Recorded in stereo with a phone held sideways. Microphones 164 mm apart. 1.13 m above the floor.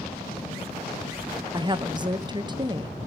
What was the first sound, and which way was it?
A woman speaking, 25° right (ahead or behind).